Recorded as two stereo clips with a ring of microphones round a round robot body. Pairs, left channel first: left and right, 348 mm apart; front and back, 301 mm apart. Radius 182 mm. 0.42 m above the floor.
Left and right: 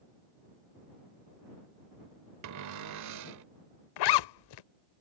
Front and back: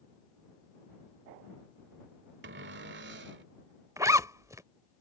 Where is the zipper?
100° left.